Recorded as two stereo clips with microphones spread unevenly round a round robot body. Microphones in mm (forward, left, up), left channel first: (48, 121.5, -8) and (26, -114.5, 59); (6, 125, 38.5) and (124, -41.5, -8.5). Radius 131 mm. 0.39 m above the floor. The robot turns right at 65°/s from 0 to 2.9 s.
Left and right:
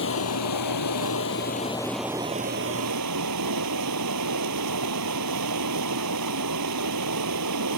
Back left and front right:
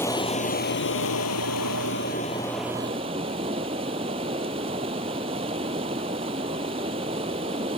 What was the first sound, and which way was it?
Running water, 45° left.